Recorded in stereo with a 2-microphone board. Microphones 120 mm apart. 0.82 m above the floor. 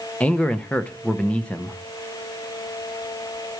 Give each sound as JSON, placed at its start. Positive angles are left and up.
{"t": 0.2, "sound": "a man speaking", "side_deg": 10, "distance_m": 0.7}